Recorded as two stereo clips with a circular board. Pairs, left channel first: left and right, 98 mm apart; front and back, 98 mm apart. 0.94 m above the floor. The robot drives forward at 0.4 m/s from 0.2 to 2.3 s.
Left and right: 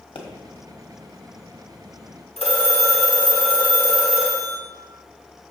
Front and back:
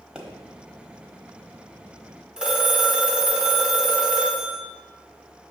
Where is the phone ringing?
95° left, 1.6 m.